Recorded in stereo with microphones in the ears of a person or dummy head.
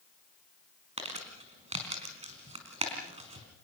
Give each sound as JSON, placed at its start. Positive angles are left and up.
{"t": 1.0, "sound": "crumpling", "side_deg": -35, "distance_m": 4.0}